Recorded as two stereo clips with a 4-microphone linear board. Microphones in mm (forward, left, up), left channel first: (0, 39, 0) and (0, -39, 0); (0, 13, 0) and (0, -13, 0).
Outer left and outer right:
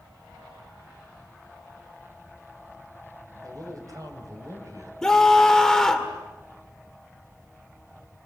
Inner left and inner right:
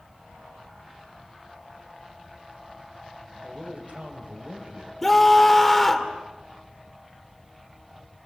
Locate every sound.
3.4 s a man speaking: 50° right (ahead or behind), 4 m
5.0 s a scream: 5° left (ahead or behind), 2.5 m